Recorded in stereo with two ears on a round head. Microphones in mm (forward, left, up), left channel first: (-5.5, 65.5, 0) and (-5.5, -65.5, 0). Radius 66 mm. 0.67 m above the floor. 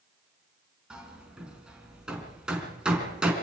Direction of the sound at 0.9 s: 5° right (ahead or behind).